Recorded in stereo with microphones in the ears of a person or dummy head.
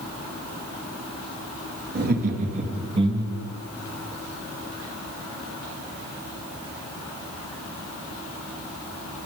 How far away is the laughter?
About 2 m.